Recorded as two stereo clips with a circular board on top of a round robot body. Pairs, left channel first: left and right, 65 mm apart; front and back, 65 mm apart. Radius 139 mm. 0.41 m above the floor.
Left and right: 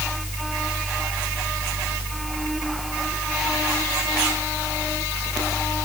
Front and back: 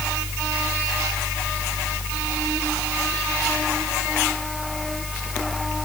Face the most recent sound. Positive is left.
No sound to turn to.